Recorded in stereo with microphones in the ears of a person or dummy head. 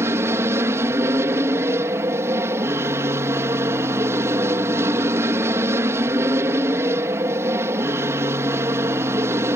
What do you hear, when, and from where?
0.0 s an aircraft: 15° right (ahead or behind)